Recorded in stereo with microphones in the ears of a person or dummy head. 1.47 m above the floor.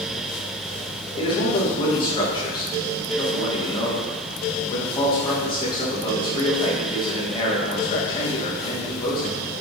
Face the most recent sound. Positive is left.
turn(degrees=30)  # may be behind; listen again after turning